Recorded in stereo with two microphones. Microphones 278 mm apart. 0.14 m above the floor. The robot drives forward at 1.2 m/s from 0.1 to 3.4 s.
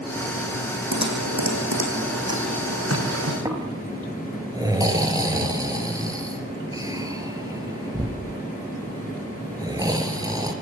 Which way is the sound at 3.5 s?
15° right (ahead or behind).